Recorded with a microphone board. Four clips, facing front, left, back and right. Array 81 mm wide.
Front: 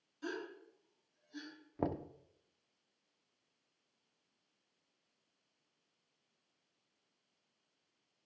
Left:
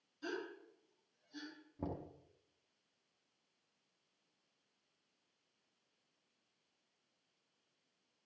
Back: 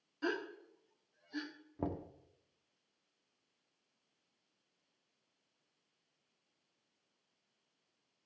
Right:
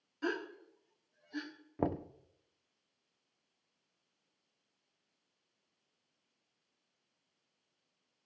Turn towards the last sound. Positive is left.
turn(degrees=-70)